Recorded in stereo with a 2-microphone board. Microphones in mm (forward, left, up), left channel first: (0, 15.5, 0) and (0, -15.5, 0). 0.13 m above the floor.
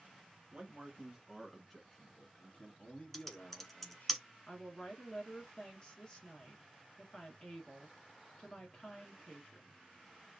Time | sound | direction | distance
0.5 | a man speaking | 30° right (ahead or behind) | 1.5 m
3.1 | typing on a keyboard | 5° left (ahead or behind) | 0.9 m
4.5 | a woman speaking | 25° left (ahead or behind) | 1.8 m